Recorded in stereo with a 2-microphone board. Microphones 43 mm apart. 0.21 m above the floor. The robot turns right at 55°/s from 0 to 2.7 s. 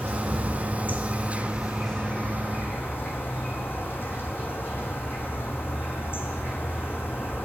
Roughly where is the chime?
I don't hear a chime.